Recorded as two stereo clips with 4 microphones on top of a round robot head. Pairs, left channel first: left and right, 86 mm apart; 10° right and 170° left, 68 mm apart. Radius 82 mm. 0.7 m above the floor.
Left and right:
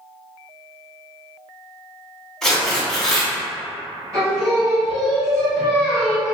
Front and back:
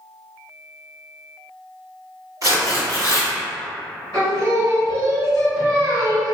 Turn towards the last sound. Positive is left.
turn(degrees=-140)